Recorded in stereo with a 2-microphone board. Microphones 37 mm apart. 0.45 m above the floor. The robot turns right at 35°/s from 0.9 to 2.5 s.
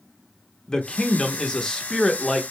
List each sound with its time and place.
0.7 s a man speaking: 25° left (ahead or behind), 0.8 m; by 2.4 s 20° left (ahead or behind), 0.8 m